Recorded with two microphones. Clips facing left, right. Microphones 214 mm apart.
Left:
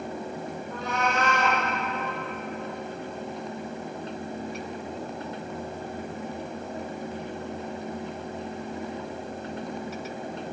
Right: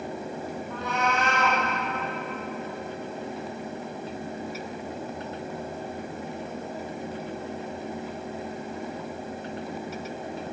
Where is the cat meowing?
45° left (ahead or behind), 2.5 m.